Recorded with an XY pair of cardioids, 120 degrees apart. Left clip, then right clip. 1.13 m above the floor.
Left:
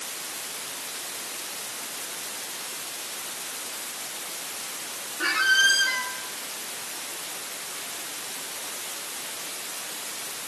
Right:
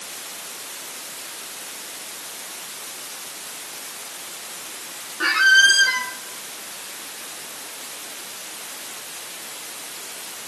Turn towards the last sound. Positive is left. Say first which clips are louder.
# right 6 dB
turn(degrees=-35)